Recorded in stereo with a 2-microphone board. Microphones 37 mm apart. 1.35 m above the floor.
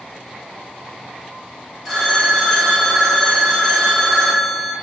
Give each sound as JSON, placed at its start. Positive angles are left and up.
{"t": 1.9, "sound": "a phone ringing", "side_deg": -10, "distance_m": 1.2}